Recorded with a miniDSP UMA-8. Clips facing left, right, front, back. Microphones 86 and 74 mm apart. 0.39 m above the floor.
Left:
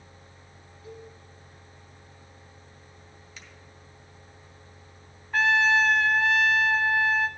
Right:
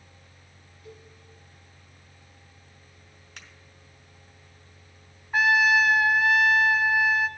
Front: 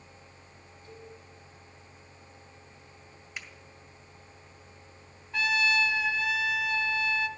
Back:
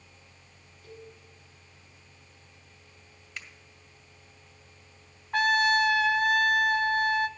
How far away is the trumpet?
About 0.5 m.